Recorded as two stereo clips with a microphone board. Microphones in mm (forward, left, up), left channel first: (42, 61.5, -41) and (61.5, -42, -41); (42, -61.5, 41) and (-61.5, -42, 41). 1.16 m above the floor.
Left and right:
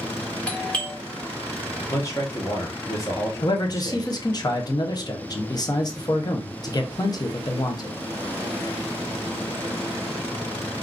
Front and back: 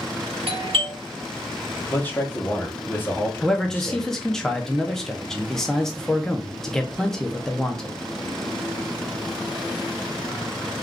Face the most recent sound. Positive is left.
turn(degrees=75)